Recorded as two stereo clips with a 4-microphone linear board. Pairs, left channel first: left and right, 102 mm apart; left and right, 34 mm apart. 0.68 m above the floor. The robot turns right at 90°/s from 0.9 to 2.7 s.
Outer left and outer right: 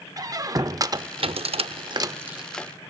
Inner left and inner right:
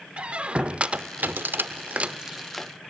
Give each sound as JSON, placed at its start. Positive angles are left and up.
{"t": 0.2, "sound": "a squeak", "side_deg": -35, "distance_m": 0.5}